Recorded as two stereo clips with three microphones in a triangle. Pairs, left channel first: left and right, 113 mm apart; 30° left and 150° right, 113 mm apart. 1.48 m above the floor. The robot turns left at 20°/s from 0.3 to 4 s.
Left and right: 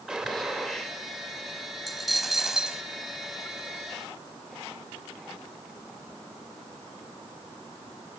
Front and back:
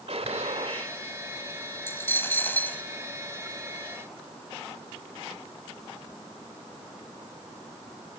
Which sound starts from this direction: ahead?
A dropped coin, at 1.9 s.